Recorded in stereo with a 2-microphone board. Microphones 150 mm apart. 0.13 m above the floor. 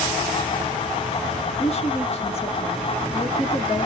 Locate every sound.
1.6 s a woman speaking: 45° left (ahead or behind), 1.5 m